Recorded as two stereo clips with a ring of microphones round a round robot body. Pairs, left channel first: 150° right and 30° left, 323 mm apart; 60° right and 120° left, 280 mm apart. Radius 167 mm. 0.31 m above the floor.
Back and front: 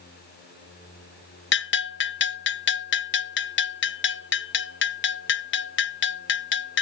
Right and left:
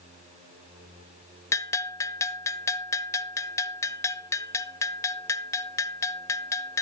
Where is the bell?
135° right, 0.8 m.